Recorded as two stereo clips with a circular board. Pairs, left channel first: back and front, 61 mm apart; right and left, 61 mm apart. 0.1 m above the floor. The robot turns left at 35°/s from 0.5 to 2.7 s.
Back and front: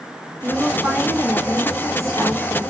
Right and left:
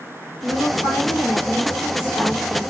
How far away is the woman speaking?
About 6.5 m.